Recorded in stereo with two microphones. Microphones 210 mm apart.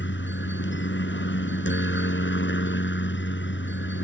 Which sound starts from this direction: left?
A helicopter, at 0.0 s.